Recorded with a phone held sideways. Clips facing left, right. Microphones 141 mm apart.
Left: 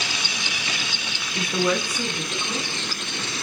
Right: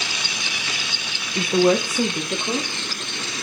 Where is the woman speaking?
25° right (ahead or behind), 1.1 m; by 2.7 s 55° right (ahead or behind), 2.5 m.